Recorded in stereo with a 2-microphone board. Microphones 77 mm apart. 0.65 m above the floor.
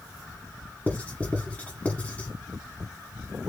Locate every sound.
0.9 s writing: 20° left (ahead or behind), 1.3 m